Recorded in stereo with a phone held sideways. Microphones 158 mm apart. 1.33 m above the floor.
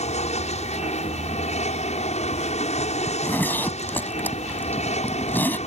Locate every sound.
0.0 s an aircraft: 50° left (ahead or behind)
3.1 s a zipper: 15° left (ahead or behind)